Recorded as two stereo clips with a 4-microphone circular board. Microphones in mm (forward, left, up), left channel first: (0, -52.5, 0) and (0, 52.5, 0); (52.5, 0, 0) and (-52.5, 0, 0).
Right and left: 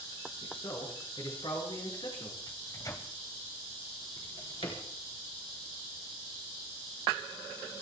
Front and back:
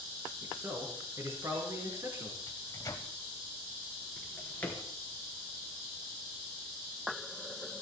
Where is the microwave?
45° right, 1.6 m.